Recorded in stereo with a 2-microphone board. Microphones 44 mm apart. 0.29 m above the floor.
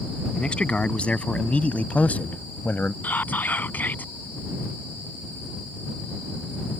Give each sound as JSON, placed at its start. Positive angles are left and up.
{"t": 0.3, "sound": "a man speaking", "side_deg": 25}
{"t": 3.0, "sound": "whispering", "side_deg": 45}